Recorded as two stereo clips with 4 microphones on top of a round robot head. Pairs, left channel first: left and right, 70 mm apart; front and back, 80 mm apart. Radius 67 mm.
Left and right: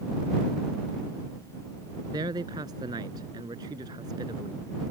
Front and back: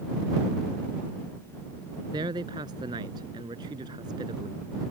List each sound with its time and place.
2.1 s a man speaking: 135° right